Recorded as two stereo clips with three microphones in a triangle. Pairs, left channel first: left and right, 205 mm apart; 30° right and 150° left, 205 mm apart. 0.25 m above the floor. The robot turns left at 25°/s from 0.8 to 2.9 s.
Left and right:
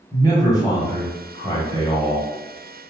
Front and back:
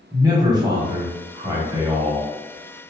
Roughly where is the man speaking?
Behind left.